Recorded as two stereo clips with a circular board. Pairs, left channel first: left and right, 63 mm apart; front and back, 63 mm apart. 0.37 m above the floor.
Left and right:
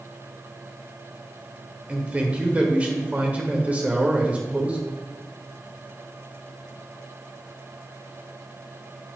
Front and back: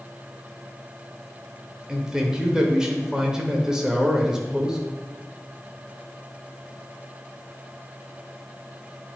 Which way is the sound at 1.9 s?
120° right.